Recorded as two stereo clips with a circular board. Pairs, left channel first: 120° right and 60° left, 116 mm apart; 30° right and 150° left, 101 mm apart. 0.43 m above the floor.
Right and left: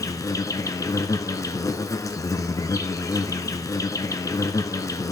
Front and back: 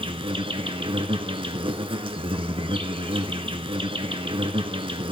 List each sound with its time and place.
0.0 s an insect: straight behind, 1.0 m